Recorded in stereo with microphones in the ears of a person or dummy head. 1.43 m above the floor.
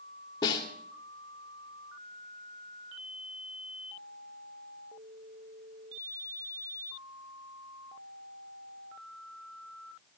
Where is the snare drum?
20° left (ahead or behind), 2 m.